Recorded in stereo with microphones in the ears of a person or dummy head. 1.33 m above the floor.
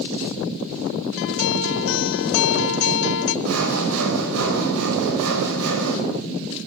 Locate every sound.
1.2 s a guitar: 70° left (ahead or behind), 1.0 m
3.5 s sawing: 80° right, 4.5 m